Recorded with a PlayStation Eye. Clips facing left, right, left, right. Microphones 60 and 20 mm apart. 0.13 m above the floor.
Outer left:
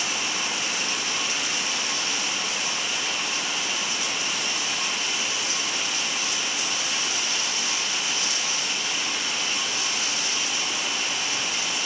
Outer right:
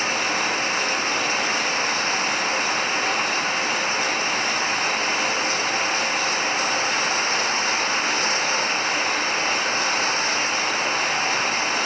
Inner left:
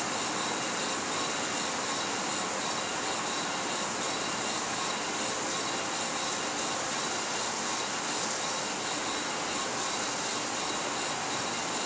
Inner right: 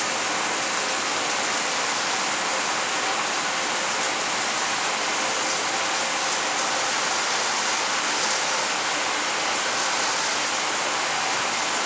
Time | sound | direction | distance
0.0 | running water | 45° right (ahead or behind) | ?